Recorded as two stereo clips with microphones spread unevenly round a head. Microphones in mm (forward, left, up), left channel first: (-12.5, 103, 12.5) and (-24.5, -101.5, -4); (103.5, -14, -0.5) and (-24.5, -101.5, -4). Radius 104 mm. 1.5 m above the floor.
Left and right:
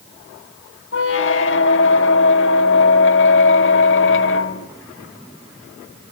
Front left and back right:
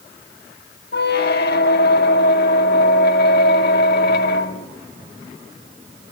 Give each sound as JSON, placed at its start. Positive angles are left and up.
{"t": 0.9, "sound": "a squeak", "azimuth_deg": 60, "distance_m": 1.8}